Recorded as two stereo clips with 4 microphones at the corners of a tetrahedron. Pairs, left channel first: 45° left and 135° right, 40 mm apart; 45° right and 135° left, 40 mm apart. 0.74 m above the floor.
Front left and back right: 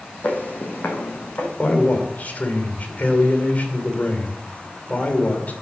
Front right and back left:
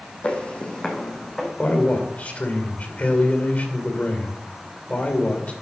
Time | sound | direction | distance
0.2 | footsteps | 5° left | 2.0 m
1.6 | a man speaking | 5° left | 2.5 m